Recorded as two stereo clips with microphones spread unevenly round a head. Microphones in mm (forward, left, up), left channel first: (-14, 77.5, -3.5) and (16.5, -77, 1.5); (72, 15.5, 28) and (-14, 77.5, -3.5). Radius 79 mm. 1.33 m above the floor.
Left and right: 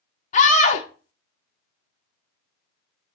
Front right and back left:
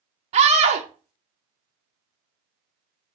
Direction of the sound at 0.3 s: 145° left.